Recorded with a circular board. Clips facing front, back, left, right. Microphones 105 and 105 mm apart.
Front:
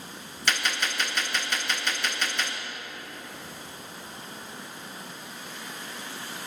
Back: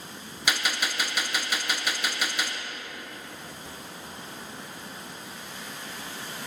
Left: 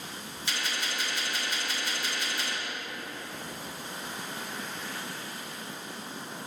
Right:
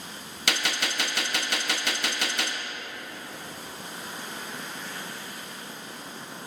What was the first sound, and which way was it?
A gunshot, 100° right.